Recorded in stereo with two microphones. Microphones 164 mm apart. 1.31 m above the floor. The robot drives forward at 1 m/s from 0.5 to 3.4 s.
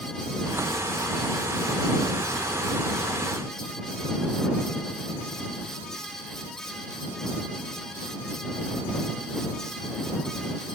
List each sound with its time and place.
Only background noise.